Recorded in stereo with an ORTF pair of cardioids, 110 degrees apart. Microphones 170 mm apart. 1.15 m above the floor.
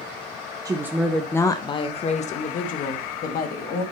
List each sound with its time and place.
0.7 s a woman speaking: 20° right, 0.7 m; by 3.8 s 65° left, 2.0 m